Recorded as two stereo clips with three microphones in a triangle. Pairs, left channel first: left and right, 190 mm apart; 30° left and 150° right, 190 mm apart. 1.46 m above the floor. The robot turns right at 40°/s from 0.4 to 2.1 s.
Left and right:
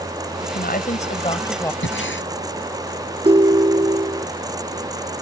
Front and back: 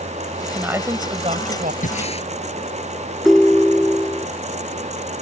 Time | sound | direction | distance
0.4 | a woman speaking | 120° left | ?
1.8 | breathing | 75° left | ?
3.2 | a ringtone | 60° right | ?